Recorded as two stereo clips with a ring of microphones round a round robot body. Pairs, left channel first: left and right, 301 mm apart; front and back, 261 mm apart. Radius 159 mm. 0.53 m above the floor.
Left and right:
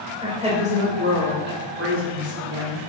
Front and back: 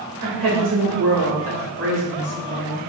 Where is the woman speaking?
165° right, 3 m; by 2.9 s 120° right, 2.5 m.